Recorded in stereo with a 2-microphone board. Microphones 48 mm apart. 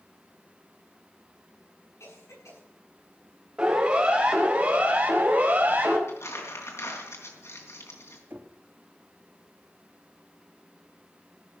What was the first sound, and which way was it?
A cough, 85° left.